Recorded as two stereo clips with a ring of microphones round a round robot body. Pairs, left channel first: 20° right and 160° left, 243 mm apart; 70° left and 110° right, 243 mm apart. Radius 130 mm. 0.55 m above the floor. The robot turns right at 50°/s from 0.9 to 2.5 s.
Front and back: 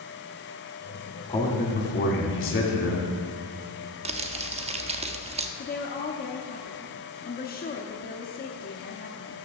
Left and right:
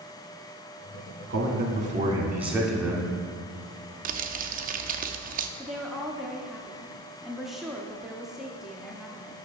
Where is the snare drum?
No snare drum in this recording.